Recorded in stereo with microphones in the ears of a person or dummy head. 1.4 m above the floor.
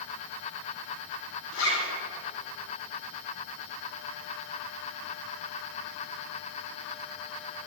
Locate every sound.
1.5 s a zipper: 80° left, 3 m